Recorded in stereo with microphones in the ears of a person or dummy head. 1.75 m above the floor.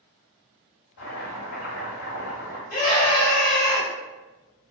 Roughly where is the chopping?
Left.